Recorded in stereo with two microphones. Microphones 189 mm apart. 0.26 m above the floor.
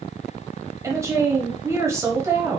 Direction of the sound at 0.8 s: 15° right (ahead or behind).